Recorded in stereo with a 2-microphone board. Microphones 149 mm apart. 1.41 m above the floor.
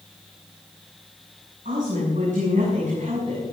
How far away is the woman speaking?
About 7.5 m.